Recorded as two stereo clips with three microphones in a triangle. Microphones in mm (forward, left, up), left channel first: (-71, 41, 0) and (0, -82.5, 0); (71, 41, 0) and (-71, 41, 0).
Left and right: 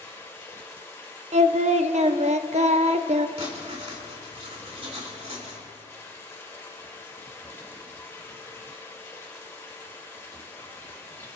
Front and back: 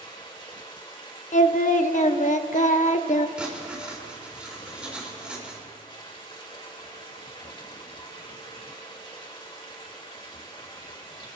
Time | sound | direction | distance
0.0 | running water | 50° left | 2.5 m
1.3 | singing | 25° right | 0.6 m
3.4 | writing | 100° right | 2.5 m